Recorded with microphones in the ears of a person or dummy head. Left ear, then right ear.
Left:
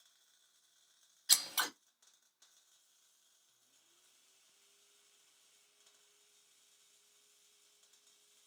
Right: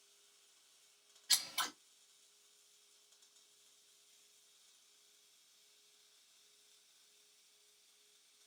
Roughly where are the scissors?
Left.